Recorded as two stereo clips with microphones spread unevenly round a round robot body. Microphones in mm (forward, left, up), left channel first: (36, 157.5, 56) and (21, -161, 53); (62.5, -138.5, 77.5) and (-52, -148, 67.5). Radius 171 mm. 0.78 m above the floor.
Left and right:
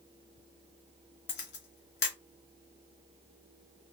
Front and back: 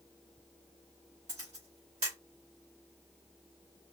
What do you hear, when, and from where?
1.3 s a camera shutter: 135° left, 0.7 m